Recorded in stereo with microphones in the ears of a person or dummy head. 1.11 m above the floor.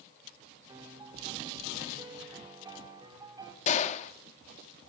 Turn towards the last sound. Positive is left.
turn(degrees=45)  # may be behind; listen again after turning